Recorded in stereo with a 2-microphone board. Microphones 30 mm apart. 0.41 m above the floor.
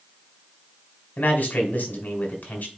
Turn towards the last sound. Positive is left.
turn(degrees=65)  # may be behind; listen again after turning